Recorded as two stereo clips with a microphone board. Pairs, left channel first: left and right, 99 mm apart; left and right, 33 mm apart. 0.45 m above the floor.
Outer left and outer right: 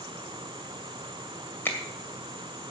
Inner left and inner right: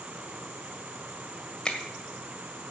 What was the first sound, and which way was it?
A finger snap, 20° left (ahead or behind).